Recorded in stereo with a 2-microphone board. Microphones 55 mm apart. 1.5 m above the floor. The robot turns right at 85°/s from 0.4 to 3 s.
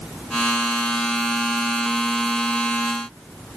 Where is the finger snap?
I don't hear a finger snap.